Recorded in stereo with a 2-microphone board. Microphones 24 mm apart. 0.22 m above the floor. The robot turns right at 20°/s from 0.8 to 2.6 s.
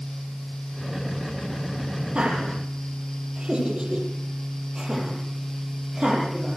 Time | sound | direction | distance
2.1 | laughter | 45° right (ahead or behind) | 8 m